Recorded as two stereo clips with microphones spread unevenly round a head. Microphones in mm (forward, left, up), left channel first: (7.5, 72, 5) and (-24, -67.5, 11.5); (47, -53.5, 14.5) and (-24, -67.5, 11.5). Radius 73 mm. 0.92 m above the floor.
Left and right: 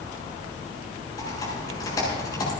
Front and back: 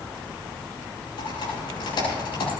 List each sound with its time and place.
1.2 s typing on a keyboard: 10° left, 7.5 m